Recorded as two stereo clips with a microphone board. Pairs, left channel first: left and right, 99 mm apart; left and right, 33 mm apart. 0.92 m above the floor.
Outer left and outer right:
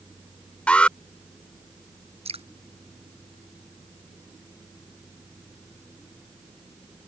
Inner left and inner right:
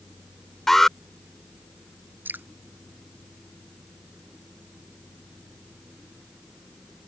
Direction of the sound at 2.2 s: 85° right.